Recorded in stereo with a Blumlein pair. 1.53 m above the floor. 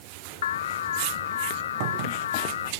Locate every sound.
0.4 s an alarm: 60° left